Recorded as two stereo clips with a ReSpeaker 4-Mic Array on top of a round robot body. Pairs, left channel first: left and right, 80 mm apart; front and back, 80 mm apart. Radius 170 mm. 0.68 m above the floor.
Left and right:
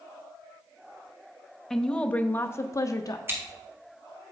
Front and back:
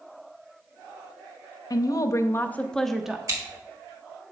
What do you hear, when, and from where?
1.7 s a woman speaking: 5° left, 0.8 m; by 3.2 s 100° left, 0.7 m
3.3 s scissors: 145° right, 2.0 m